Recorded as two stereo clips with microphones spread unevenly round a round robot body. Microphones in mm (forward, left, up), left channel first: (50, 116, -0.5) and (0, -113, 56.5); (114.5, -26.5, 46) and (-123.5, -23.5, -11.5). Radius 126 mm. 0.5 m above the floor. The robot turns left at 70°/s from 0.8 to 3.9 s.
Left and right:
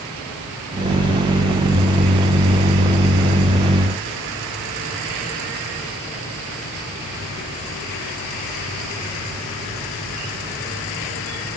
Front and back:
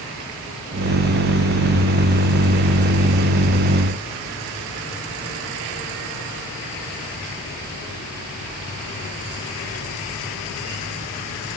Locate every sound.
Only background noise.